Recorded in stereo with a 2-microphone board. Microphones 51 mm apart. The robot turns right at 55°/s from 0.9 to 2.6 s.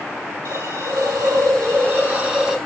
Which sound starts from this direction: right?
A hiss, at 0.5 s.